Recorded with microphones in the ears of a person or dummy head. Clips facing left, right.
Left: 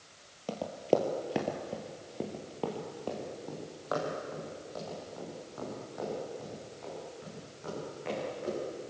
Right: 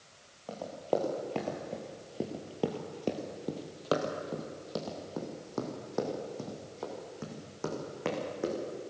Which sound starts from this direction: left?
Running footsteps, at 0.5 s.